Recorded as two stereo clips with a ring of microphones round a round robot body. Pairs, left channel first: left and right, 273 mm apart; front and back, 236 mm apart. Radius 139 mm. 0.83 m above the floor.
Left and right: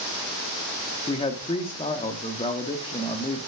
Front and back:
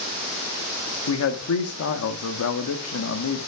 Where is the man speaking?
20° left, 1.2 m.